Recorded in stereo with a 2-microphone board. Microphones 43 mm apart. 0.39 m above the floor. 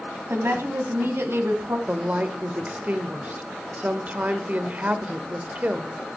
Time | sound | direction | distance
0.3 | a woman speaking | 65° right (ahead or behind) | 2.5 m
1.9 | a woman speaking | 35° right (ahead or behind) | 1.2 m